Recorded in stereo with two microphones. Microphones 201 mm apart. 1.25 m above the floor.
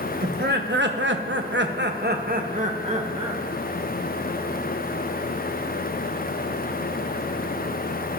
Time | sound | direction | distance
0.2 | laughter | 55° right (ahead or behind) | 1.4 m